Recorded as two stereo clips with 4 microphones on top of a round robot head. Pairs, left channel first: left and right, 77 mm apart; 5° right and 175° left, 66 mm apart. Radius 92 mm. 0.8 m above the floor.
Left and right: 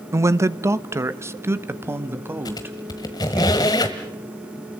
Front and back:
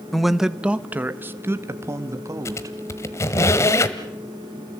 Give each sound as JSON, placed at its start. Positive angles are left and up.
{"t": 0.1, "sound": "a man speaking", "azimuth_deg": -90, "distance_m": 1.0}
{"t": 2.5, "sound": "a squeak", "azimuth_deg": 45, "distance_m": 1.3}